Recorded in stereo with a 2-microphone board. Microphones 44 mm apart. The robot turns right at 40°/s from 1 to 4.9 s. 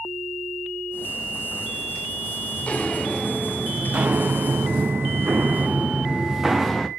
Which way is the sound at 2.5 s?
35° left (ahead or behind).